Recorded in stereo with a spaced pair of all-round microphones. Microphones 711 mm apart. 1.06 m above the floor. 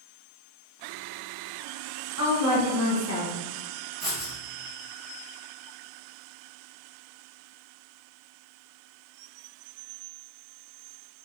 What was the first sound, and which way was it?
A woman speaking, 20° right (ahead or behind).